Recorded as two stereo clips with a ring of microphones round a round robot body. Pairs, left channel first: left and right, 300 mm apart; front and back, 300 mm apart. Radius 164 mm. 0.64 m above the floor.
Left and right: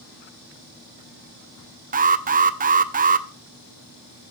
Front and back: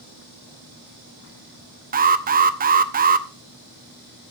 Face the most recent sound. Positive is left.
turn(degrees=-135)